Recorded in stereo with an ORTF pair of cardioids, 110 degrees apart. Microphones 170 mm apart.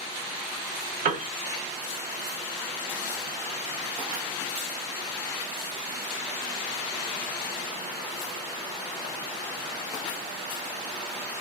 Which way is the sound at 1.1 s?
60° right.